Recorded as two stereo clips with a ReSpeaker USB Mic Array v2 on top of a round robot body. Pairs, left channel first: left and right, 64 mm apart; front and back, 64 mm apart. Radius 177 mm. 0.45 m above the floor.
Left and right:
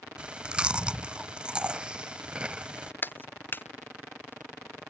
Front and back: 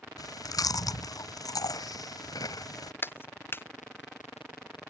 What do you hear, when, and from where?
0.2 s chewing: 15° right
3.0 s a clap: 45° left